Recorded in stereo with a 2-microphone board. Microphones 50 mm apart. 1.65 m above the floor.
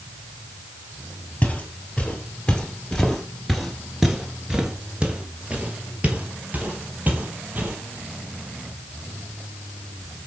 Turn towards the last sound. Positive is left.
turn(degrees=-40)  # may be behind; listen again after turning